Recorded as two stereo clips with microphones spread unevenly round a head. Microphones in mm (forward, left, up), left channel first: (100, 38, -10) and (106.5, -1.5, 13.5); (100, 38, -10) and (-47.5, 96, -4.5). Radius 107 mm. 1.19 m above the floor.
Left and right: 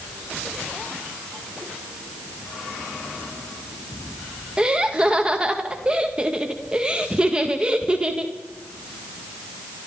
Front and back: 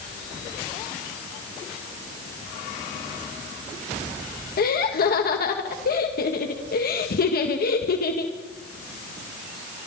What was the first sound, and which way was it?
Laughter, straight ahead.